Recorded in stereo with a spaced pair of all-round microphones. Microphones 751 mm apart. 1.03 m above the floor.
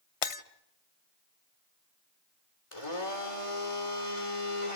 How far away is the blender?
About 3 m.